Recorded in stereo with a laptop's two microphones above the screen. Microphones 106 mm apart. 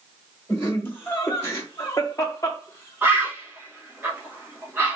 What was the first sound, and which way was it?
Laughter, 15° left (ahead or behind).